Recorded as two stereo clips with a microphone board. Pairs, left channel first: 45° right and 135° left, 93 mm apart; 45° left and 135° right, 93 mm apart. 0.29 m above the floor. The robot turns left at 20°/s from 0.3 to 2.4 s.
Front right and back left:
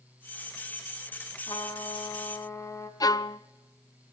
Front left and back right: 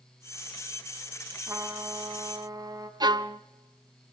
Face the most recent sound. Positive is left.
turn(degrees=-95)